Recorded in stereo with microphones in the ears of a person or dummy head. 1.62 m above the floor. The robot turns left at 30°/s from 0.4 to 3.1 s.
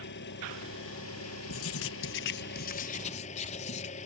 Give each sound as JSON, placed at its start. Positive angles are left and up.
{"t": 0.0, "sound": "an engine running", "azimuth_deg": 120}
{"t": 1.5, "sound": "writing", "azimuth_deg": 85}